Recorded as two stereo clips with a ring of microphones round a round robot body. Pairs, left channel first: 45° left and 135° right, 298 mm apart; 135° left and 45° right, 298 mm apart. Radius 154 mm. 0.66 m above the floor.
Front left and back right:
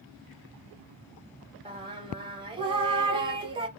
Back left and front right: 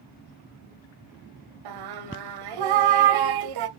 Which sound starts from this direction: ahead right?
Singing, at 1.6 s.